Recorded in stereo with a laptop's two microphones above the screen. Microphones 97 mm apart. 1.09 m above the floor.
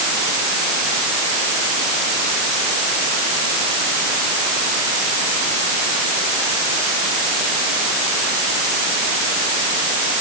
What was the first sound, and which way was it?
Only background noise.